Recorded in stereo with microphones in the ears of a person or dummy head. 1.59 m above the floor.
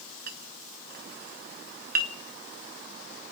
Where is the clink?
45° right (ahead or behind), 0.9 m.